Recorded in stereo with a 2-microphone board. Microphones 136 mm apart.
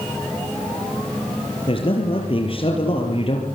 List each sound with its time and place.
1.7 s a man speaking: 40° left (ahead or behind), 4 m